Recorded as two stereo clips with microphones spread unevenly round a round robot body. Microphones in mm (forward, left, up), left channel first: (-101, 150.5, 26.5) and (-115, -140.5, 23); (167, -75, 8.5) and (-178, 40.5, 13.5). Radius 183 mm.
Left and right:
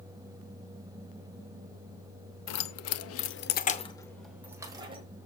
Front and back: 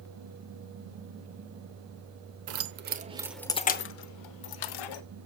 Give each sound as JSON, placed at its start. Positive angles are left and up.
{"t": 2.5, "sound": "keys jangling", "azimuth_deg": 115, "distance_m": 0.9}